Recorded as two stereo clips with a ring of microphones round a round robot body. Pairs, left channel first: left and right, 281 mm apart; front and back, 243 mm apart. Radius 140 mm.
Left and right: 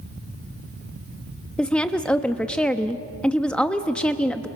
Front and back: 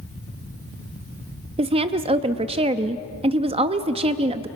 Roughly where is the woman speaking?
Behind.